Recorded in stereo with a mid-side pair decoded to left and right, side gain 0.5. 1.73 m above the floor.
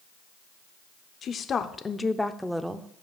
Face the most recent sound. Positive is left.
turn(degrees=-20)